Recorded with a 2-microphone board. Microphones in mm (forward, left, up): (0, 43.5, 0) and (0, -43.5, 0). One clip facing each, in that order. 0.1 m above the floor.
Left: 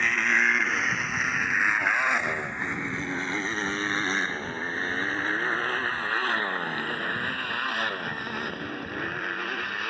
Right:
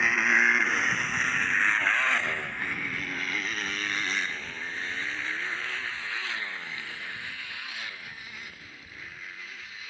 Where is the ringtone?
I don't hear a ringtone.